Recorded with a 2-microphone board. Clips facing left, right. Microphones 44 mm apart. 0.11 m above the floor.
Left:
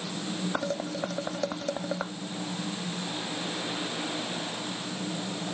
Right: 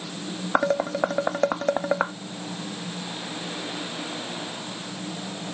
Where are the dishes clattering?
45° right (ahead or behind).